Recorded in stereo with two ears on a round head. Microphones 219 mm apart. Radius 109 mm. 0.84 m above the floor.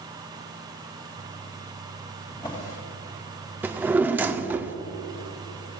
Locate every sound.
2.3 s a drawer: 20° left (ahead or behind), 2.5 m
3.6 s a drawer: 10° right (ahead or behind), 0.5 m